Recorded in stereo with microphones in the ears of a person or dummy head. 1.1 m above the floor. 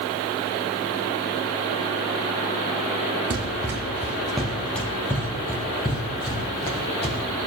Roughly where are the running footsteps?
Right.